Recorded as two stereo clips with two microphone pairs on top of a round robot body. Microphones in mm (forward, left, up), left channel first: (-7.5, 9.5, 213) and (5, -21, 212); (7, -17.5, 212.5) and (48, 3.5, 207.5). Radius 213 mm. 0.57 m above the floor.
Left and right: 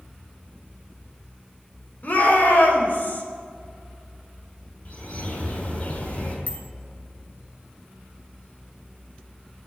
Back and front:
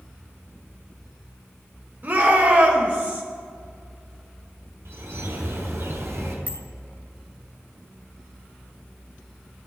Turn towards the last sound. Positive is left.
turn(degrees=75)